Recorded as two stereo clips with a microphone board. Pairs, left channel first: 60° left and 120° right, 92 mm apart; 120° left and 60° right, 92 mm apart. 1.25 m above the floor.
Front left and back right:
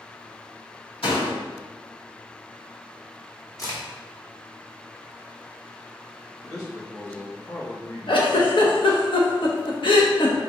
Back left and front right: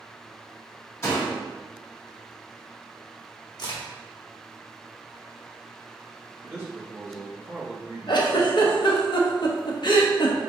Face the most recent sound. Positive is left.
turn(degrees=90)